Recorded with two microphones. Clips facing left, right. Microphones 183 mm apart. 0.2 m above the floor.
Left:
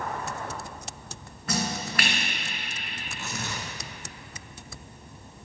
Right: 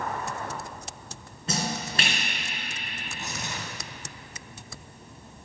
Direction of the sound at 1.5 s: 25° right (ahead or behind).